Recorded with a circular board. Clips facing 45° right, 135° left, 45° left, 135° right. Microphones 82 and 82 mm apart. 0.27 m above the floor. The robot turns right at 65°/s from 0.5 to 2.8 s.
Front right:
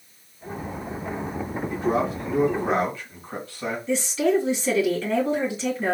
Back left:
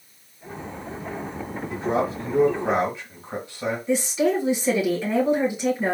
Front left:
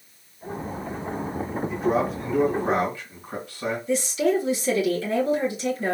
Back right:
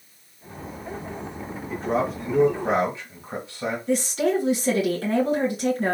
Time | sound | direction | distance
1.7 | a man speaking | 110° left | 1.6 m
3.9 | a woman speaking | 150° right | 2.5 m